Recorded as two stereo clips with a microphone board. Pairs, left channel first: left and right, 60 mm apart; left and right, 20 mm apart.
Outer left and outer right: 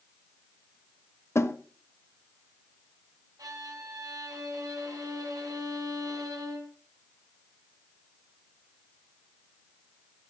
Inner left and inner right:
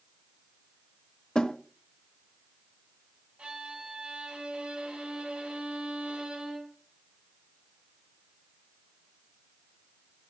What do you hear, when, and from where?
1.4 s a snare drum: 45° left (ahead or behind), 1.2 m
3.4 s a violin: 75° right (ahead or behind), 3 m